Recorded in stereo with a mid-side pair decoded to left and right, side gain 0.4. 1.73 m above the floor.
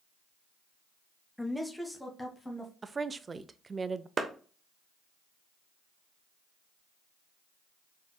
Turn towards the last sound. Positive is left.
turn(degrees=-45)